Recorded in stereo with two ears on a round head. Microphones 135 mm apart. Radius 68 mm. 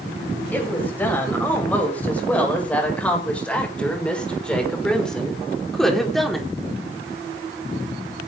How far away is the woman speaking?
About 8.5 m.